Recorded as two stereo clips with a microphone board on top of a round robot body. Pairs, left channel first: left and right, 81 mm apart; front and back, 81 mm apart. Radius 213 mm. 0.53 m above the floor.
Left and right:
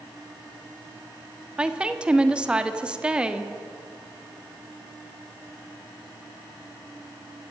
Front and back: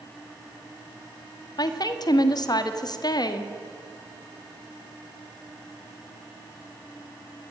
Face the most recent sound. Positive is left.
turn(degrees=-15)